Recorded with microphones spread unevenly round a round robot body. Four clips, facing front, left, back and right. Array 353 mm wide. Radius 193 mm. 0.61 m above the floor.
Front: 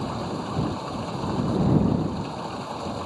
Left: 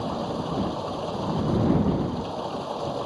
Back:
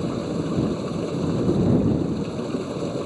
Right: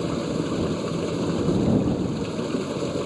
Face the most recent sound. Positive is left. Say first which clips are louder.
# right 3 dB, back 4 dB
turn(degrees=-140)